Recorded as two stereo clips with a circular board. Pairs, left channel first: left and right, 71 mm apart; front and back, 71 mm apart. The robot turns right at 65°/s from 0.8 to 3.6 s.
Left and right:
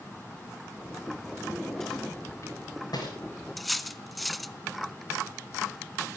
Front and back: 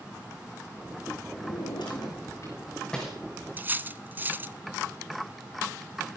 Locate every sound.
1.4 s a drawer: 20° right, 6 m; by 3.2 s 95° left, 6 m
3.6 s cutlery clinking: straight behind, 0.6 m